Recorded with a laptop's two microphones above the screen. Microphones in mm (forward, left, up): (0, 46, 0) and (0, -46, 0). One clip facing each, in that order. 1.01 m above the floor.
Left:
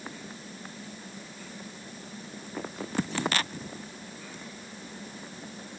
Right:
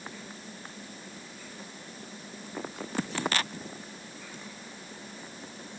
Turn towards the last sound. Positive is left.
No sound to turn to.